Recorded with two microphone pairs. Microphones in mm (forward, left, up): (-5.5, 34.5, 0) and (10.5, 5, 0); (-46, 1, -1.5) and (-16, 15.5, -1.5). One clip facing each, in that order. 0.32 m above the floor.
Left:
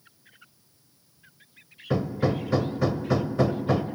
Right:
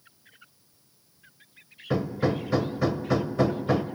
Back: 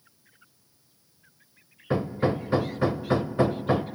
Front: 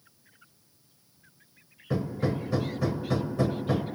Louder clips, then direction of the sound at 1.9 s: Even, back 4 dB; 155° right.